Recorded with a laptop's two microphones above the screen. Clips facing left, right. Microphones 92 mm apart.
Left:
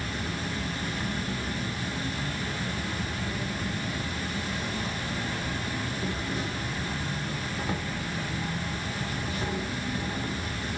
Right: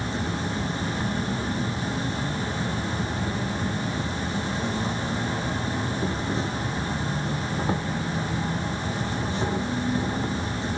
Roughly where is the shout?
I don't hear a shout.